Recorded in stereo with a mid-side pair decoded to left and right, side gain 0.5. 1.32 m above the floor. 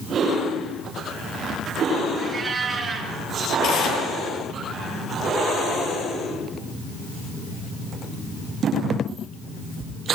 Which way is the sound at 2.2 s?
35° right.